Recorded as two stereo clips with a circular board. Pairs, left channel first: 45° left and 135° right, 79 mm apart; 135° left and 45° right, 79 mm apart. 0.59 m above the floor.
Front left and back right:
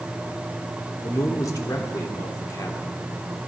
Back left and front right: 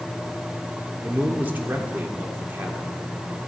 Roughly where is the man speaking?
Ahead.